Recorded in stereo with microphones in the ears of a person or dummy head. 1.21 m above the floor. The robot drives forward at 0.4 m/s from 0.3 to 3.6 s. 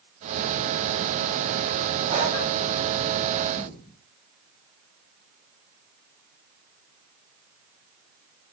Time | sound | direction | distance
2.1 | breathing | 35° right (ahead or behind) | 3.5 m
3.6 | a thud | 35° left (ahead or behind) | 4 m